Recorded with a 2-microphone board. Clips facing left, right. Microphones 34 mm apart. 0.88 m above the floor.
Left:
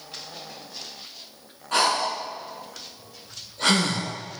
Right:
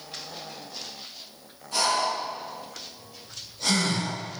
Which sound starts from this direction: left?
Breathing, at 1.7 s.